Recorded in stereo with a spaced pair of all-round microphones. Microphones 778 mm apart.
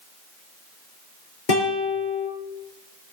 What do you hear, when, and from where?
1.5 s a guitar: 80° left, 5 m